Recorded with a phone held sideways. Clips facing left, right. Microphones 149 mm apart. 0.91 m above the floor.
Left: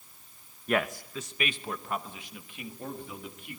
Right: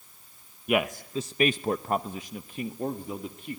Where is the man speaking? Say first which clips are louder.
Right 3 dB; 10° right (ahead or behind), 0.7 m; by 3.6 s 35° right (ahead or behind), 1.9 m.